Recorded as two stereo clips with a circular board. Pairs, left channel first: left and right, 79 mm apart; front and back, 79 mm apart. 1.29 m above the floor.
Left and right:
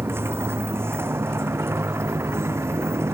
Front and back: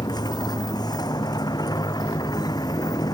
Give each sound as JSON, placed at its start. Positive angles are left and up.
{"t": 0.0, "sound": "a motorcycle", "azimuth_deg": -30}